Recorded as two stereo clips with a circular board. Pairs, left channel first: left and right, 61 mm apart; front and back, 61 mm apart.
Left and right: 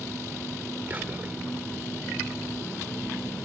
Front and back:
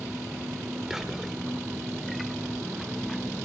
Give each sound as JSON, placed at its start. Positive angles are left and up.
{"t": 0.9, "sound": "whispering", "azimuth_deg": -100, "distance_m": 0.9}